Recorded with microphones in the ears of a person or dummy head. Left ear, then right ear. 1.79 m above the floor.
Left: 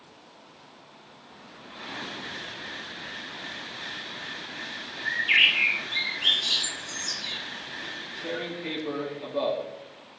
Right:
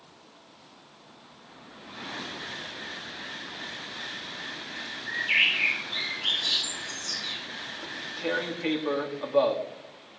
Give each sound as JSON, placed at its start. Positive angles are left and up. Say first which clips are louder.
{"t": 5.0, "sound": "a bird", "louder": "left 3 dB", "side_deg": 25, "distance_m": 3.0}
{"t": 7.8, "sound": "tearing paper", "louder": "right 5 dB", "side_deg": -40, "distance_m": 1.0}